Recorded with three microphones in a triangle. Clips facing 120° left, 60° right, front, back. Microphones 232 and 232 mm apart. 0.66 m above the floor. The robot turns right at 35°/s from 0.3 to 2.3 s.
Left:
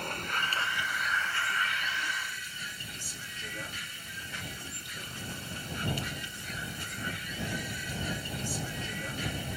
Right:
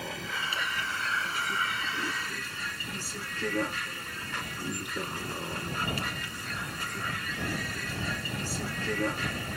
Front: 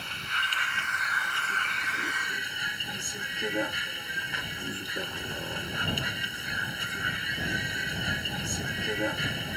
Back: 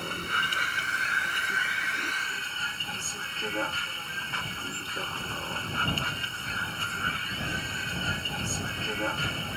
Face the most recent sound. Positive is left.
turn(degrees=-75)